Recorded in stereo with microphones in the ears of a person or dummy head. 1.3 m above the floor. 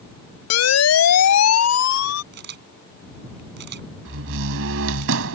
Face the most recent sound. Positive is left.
turn(degrees=-70)  # may be behind; listen again after turning